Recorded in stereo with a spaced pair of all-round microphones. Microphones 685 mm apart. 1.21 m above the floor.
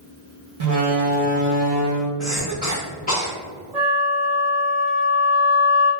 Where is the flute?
65° right (ahead or behind), 1.0 m.